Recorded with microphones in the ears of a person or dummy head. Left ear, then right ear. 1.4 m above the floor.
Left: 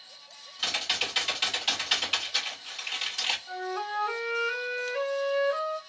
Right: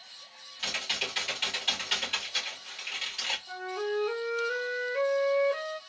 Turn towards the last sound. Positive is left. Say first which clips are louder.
# left 1 dB
turn(degrees=40)  # may be behind; listen again after turning